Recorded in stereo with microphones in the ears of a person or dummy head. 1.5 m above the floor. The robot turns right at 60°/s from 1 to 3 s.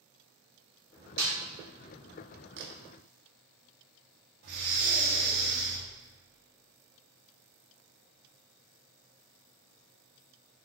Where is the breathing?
65° right (ahead or behind), 0.9 m.